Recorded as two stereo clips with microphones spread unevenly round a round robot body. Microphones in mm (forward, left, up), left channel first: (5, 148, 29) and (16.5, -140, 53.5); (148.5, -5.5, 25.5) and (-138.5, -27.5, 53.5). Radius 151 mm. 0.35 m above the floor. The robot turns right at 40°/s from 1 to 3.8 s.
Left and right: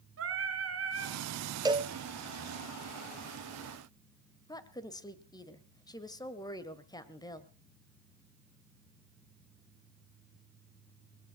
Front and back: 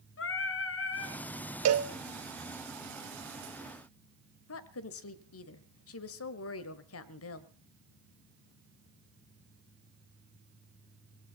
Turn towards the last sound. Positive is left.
turn(degrees=20)